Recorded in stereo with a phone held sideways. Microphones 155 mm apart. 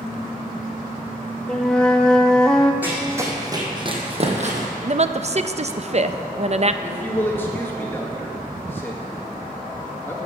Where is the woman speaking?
45° right (ahead or behind), 0.5 m.